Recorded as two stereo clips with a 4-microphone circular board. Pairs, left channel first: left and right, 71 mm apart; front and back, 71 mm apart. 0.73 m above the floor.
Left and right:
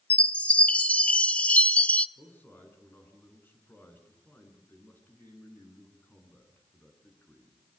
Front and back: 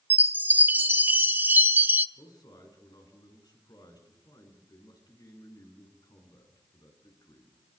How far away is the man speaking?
About 8.5 m.